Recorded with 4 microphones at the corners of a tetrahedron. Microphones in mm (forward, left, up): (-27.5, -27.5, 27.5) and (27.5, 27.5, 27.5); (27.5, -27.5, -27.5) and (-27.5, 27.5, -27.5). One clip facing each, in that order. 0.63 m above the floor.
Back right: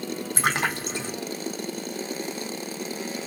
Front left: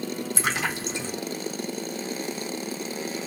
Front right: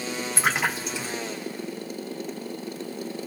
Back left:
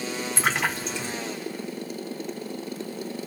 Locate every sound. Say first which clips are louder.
0.4 s a splash: back right 4 dB, front right 1 dB; 130° right, 0.9 m